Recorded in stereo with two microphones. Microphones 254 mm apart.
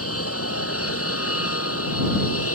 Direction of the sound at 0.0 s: 65° left (ahead or behind).